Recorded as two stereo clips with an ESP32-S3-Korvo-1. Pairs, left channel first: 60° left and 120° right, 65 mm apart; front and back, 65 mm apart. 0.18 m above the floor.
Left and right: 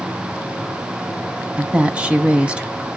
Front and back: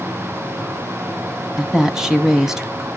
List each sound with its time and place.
1.6 s a woman speaking: 115° right, 1.1 m